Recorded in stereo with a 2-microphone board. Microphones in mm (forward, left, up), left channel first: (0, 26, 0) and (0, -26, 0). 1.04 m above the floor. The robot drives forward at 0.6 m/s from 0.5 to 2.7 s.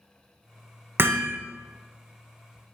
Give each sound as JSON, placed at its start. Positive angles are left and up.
{"t": 1.0, "sound": "hammering", "side_deg": -45, "distance_m": 0.6}